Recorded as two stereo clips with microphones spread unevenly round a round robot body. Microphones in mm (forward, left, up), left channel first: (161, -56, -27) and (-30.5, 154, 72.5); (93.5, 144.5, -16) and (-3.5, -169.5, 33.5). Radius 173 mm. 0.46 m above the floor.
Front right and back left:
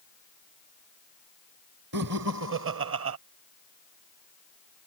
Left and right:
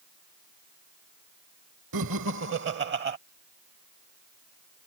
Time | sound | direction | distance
1.9 | laughter | 160° right | ?